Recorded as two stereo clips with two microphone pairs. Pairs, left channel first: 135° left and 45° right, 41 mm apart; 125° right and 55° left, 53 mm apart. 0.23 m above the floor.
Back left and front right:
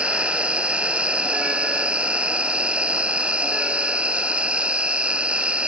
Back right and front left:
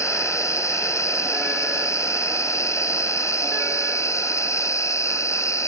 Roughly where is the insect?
Right.